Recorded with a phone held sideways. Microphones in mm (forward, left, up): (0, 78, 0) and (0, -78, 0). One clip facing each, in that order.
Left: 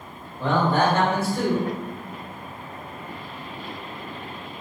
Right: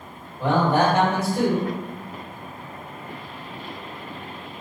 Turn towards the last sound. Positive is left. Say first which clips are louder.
# right 1 dB
turn(degrees=-15)  # may be behind; listen again after turning